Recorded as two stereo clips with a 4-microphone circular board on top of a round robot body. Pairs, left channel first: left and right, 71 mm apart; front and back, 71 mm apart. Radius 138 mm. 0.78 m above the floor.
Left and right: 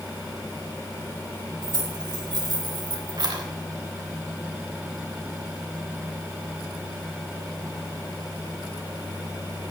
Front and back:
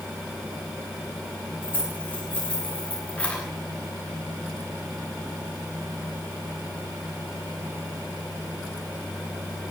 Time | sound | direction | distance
1.6 | keys jangling | 70° right | 4 m